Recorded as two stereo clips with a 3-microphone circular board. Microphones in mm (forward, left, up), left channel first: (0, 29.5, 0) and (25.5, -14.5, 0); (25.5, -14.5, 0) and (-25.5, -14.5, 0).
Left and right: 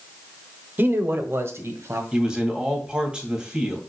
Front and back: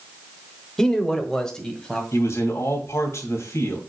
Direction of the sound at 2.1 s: 15° left.